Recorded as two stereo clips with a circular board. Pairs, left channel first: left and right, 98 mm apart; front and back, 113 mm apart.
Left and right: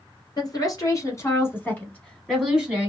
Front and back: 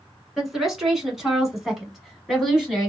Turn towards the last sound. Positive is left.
turn(degrees=-95)